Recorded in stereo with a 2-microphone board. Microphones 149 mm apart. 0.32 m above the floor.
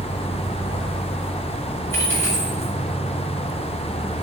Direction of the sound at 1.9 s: 15° left (ahead or behind).